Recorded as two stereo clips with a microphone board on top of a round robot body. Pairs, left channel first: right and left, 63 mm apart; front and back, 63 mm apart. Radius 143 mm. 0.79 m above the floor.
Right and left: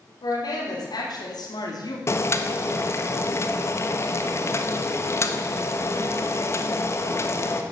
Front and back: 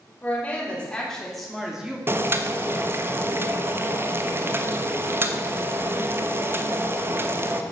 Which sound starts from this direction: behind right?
Boiling, at 2.1 s.